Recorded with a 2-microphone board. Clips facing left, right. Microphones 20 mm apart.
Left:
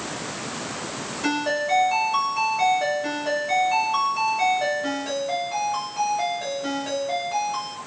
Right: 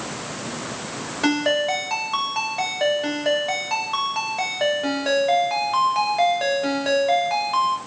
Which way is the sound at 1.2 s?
55° right (ahead or behind).